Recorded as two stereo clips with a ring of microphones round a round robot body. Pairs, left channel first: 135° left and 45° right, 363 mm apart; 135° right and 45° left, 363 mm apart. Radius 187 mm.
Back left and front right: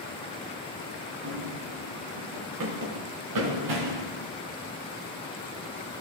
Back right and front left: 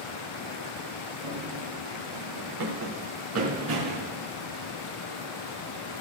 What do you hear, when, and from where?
1.2 s running footsteps: 5° left, 5 m; by 4.1 s 15° right, 3.5 m